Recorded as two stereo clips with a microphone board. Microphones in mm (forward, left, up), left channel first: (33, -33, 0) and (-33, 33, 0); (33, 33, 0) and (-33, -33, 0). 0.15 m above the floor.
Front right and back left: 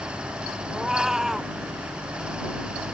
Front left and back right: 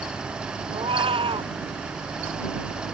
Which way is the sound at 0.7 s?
140° right.